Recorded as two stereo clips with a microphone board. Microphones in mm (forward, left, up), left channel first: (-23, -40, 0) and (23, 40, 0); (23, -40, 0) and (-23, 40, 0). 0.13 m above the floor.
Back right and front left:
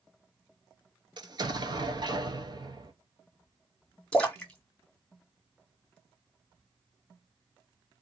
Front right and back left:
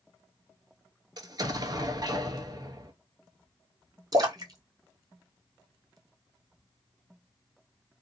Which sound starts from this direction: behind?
A splash, at 4.1 s.